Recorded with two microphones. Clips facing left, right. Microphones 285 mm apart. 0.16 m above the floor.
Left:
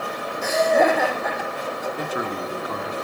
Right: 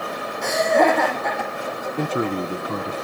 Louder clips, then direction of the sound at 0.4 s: Even; 5° left (ahead or behind).